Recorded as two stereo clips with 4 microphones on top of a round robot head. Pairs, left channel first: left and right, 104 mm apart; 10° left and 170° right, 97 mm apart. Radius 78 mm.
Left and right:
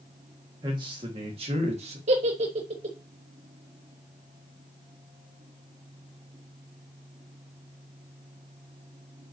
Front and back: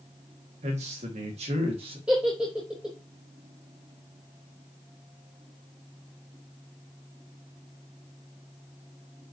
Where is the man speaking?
150° right, 2.5 m; by 2.0 s 125° right, 2 m.